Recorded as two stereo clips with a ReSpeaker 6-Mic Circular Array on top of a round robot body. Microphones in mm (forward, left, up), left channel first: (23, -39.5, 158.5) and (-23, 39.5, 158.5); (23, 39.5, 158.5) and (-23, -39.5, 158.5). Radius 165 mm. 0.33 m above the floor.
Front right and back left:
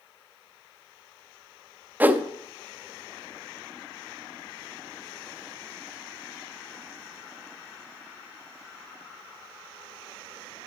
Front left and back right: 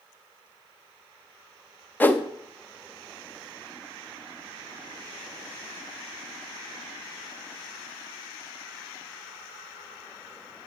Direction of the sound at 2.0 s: 85° left.